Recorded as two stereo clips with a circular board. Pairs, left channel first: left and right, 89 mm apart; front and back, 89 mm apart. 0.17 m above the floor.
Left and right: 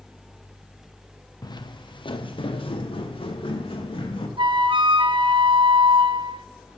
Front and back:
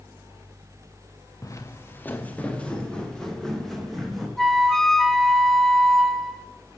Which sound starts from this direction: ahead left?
Footsteps, at 1.4 s.